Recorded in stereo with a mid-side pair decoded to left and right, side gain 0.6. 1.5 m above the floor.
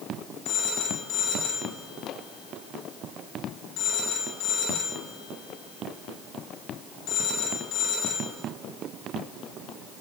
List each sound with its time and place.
0.5 s a phone ringing: 65° left, 4.5 m